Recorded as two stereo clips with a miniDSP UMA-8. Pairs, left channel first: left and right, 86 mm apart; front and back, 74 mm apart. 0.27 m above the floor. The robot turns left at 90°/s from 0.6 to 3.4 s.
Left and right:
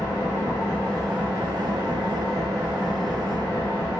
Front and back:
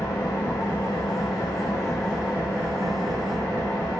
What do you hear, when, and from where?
0.0 s an engine running: 45° left, 3 m; by 4.0 s 155° left, 3 m